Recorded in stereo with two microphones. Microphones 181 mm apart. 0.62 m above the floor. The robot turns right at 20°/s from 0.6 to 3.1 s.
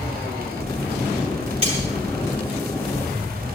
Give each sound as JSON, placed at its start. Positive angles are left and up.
{"t": 1.6, "sound": "cutlery clinking", "side_deg": -35, "distance_m": 9.0}